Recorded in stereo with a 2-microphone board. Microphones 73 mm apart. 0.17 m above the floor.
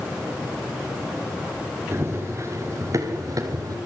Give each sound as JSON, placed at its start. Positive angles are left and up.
{"t": 1.9, "sound": "running footsteps", "side_deg": -35, "distance_m": 5.5}